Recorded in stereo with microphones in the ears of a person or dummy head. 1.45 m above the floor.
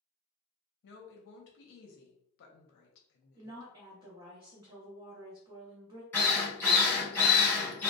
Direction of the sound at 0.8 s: 70° left (ahead or behind).